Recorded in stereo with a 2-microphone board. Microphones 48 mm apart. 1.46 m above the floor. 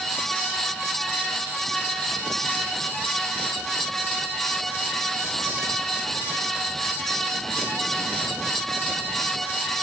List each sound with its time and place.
Only background noise.